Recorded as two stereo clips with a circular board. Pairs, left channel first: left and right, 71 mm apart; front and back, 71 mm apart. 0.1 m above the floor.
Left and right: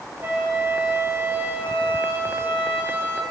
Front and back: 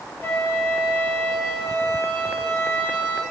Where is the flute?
45° right, 2 m.